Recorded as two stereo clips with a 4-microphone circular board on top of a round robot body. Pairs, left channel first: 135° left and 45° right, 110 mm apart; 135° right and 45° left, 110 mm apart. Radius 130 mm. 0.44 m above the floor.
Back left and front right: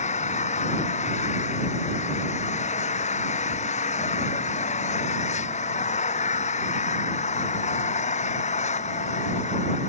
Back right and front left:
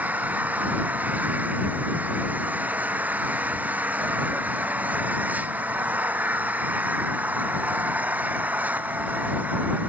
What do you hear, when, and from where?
0.0 s an engine running: 120° left